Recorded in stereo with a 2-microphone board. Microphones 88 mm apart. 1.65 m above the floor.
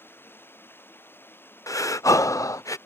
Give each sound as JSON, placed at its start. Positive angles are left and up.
{"t": 0.0, "sound": "running water", "side_deg": 25}
{"t": 1.7, "sound": "breathing", "side_deg": 40}